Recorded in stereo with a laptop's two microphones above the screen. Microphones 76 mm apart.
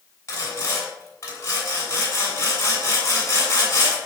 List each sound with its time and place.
0.3 s sawing: 35° left (ahead or behind), 7 m